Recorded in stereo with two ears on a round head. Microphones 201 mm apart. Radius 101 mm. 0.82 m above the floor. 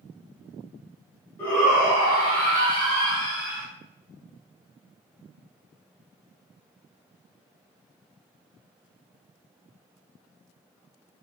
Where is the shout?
10° left (ahead or behind), 1.0 m; by 3.7 s 60° right (ahead or behind), 1.6 m.